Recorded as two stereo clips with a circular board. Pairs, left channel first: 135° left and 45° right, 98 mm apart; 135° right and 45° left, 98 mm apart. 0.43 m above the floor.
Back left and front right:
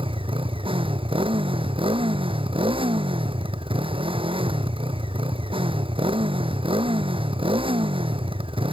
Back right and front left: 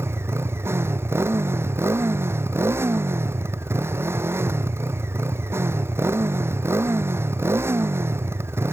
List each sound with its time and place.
0.0 s a motorcycle: 20° right